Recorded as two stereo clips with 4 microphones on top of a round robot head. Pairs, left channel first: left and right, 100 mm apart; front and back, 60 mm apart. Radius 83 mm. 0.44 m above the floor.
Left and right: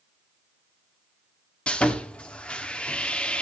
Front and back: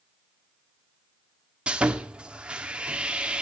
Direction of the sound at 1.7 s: 145° left.